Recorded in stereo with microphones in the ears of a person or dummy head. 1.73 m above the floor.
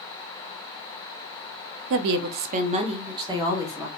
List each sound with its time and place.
1.9 s a woman speaking: 65° right (ahead or behind), 0.5 m; by 3.9 s 15° right (ahead or behind), 1.4 m